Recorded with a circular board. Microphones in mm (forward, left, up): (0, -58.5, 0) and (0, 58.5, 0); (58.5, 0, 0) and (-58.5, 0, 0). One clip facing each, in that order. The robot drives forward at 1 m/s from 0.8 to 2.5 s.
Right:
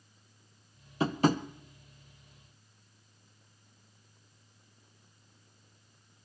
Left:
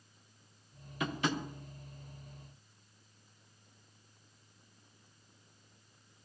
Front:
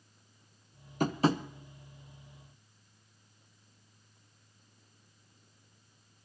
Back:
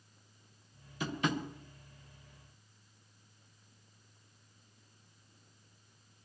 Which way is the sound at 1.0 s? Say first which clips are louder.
Right 8 dB, front 6 dB; 35° right.